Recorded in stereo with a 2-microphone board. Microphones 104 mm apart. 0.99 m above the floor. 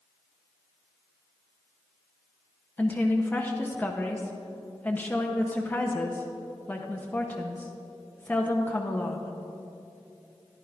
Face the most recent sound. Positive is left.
turn(degrees=15)  # may be behind; listen again after turning